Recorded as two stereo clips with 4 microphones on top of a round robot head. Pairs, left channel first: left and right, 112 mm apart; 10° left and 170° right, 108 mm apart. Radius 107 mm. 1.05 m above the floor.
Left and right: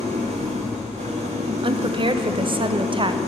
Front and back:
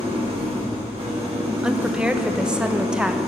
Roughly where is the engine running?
Behind right.